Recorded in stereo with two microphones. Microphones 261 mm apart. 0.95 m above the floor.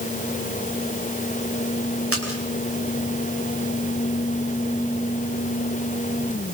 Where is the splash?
65° right (ahead or behind), 5.5 m.